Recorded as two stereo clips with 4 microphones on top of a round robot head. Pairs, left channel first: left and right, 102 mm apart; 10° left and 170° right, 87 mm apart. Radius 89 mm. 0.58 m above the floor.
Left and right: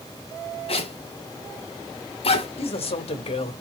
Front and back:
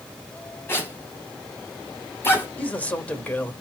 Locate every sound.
0.7 s a zipper: 75° left, 6 m
2.6 s a man speaking: 80° left, 3 m